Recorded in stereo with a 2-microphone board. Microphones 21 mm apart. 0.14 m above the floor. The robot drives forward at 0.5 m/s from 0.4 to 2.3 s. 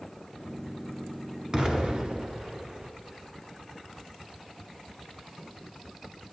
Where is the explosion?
40° right (ahead or behind), 1.2 m; by 2.9 s 45° right (ahead or behind), 1.0 m.